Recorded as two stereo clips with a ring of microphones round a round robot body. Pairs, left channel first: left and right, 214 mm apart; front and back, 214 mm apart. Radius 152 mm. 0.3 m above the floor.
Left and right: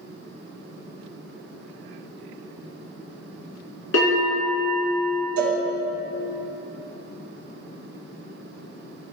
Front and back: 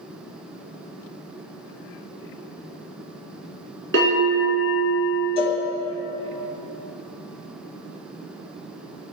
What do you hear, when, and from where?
3.9 s a bell: 130° left, 2 m
5.4 s a cowbell: 115° right, 1.2 m